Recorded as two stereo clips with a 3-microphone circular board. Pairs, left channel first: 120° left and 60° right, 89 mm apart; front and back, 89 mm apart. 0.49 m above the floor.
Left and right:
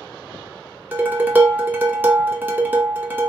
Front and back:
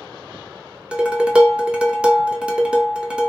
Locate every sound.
0.9 s dishes clattering: 115° right, 0.5 m